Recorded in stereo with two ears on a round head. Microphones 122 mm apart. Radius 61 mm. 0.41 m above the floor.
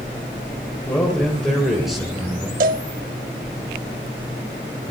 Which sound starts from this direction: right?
A cowbell, at 2.6 s.